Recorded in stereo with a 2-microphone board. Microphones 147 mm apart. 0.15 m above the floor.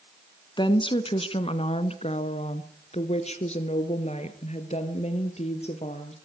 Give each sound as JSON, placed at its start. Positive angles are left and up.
{"t": 0.6, "sound": "a woman speaking", "side_deg": 30, "distance_m": 1.3}